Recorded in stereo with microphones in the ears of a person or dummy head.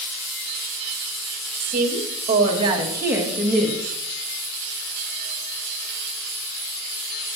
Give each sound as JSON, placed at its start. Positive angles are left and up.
{"t": 1.6, "sound": "a woman speaking", "side_deg": -55, "distance_m": 2.5}